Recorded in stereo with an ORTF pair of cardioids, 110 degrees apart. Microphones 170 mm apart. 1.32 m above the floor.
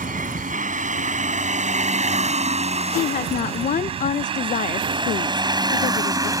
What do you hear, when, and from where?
0.0 s a vehicle: 50° right; by 6.4 s 20° right
3.0 s a woman speaking: 50° left